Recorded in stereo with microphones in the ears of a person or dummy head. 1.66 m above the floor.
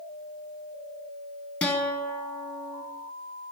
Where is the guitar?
10° left (ahead or behind), 0.7 m.